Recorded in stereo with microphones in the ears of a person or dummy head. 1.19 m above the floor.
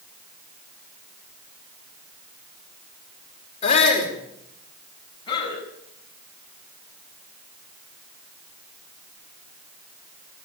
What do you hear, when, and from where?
3.6 s a shout: 35° left (ahead or behind), 5 m
5.3 s a man speaking: 25° left (ahead or behind), 8.5 m